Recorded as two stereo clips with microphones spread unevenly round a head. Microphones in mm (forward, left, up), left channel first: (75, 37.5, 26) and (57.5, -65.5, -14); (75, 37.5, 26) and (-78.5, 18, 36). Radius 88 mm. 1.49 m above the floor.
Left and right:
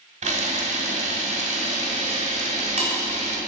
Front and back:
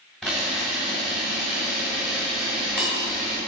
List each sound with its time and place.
0.2 s a camera shutter: 85° right, 1.6 m